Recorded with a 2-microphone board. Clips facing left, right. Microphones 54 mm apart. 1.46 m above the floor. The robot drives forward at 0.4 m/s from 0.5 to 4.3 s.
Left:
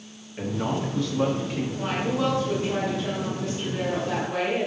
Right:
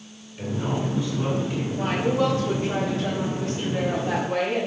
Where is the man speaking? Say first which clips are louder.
Even; 60° left (ahead or behind), 2.5 m; by 1.7 s 70° left (ahead or behind), 2 m.